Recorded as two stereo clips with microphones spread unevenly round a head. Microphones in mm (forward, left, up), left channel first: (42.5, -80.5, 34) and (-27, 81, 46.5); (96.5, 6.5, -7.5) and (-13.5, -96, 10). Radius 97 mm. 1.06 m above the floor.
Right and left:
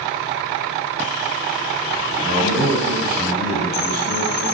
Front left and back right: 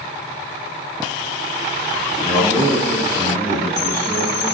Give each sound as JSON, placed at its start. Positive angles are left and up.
{"t": 2.2, "sound": "a man speaking", "azimuth_deg": 125, "distance_m": 7.0}